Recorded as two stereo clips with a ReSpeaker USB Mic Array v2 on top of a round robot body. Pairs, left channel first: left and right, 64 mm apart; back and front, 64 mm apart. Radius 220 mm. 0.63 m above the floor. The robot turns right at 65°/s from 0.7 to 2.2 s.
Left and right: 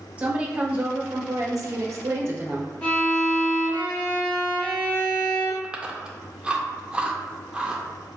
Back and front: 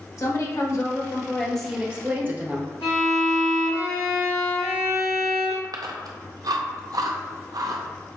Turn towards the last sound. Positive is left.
turn(degrees=-15)